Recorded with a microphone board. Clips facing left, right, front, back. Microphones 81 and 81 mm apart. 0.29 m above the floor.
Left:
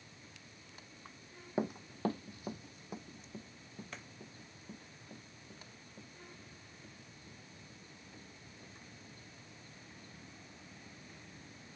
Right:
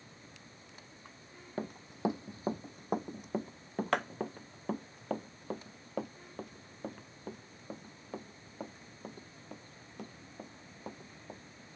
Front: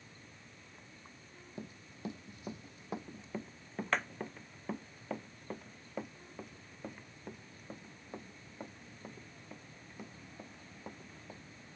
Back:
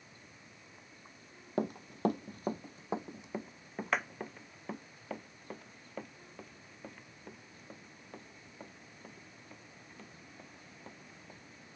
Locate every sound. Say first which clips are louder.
1.6 s running footsteps: even, back 14 dB; 170° left; by 11.4 s 75° right